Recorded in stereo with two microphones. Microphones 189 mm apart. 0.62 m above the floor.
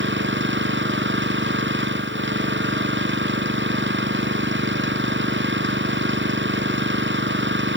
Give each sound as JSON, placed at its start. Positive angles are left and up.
{"t": 0.0, "sound": "an engine running", "side_deg": -75}